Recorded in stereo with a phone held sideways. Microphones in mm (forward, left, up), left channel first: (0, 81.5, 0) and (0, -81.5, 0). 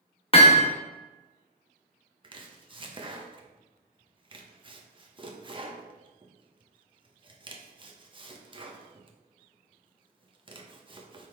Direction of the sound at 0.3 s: 35° left (ahead or behind).